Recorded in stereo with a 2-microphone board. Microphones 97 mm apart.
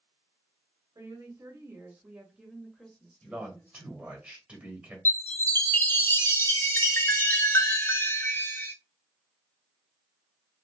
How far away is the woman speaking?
About 1.3 m.